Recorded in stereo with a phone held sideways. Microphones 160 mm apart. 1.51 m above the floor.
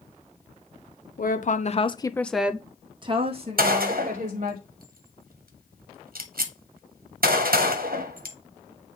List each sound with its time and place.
1.2 s a woman speaking: 65° left (ahead or behind), 0.9 m; by 4.6 s 55° right (ahead or behind), 1.9 m
3.6 s a gunshot: 75° right (ahead or behind), 1.0 m